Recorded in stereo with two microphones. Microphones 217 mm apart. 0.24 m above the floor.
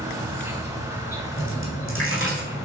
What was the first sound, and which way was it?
An insect, 10° right (ahead or behind).